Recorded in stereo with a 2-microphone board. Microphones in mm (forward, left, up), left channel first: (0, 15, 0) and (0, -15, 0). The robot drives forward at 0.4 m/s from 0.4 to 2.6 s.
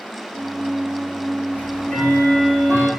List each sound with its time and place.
1.5 s ticking: 60° left (ahead or behind), 6 m